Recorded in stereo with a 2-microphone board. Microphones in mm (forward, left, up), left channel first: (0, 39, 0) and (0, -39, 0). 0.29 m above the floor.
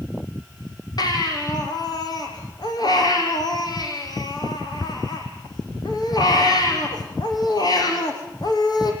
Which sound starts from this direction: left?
A baby crying, at 1.0 s.